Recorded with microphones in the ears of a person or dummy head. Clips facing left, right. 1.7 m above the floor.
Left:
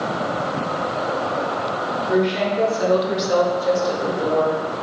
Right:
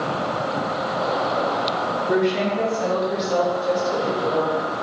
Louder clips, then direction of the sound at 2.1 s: Left 1 dB; 15° right (ahead or behind).